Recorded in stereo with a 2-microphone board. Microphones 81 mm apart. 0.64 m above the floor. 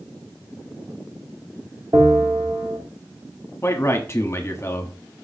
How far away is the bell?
About 1.7 m.